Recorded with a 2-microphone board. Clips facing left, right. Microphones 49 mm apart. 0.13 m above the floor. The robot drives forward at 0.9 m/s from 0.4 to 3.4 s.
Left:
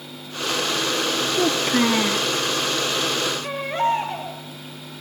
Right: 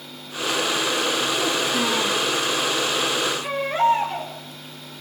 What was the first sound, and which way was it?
A child speaking, 45° left (ahead or behind).